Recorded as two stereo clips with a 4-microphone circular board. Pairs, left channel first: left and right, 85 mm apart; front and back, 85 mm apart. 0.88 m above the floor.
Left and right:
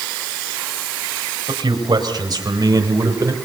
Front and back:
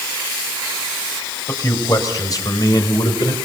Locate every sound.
1.5 s a man speaking: 55° right, 4.5 m; by 3.3 s 40° right, 3.5 m